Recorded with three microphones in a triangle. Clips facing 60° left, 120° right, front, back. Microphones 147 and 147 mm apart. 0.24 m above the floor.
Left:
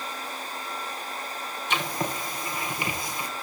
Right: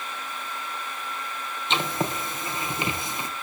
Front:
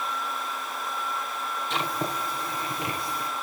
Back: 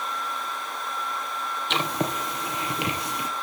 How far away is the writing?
About 3 m.